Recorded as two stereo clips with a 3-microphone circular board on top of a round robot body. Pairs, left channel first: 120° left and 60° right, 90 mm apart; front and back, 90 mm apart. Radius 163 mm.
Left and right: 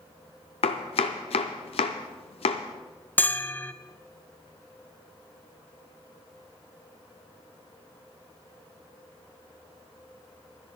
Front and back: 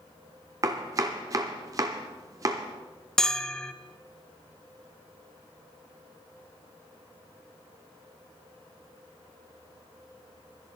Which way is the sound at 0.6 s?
120° left.